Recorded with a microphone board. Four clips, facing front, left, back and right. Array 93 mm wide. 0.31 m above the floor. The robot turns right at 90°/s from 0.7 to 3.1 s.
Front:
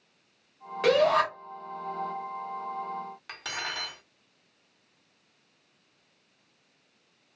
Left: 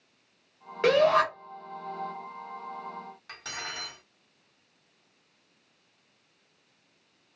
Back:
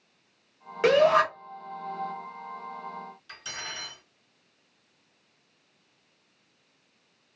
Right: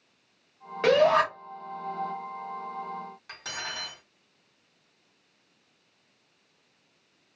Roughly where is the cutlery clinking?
Ahead.